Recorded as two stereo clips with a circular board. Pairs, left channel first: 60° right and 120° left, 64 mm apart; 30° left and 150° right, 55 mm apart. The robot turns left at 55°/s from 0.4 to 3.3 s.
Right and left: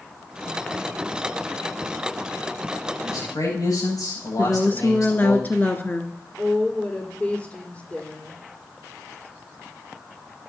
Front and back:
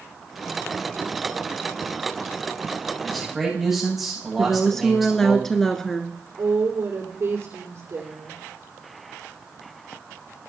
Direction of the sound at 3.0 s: 50° right.